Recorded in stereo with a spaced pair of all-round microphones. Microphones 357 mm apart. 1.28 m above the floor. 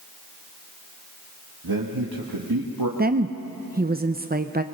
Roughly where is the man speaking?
Right.